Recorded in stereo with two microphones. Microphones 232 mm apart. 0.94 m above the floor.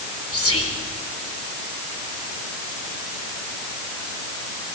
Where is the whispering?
75° left (ahead or behind), 4 m.